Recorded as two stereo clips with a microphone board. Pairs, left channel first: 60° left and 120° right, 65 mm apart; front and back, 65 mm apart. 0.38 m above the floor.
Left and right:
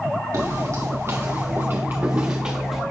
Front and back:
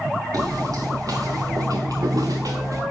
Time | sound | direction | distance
0.3 | footsteps | 155° right | 2.5 m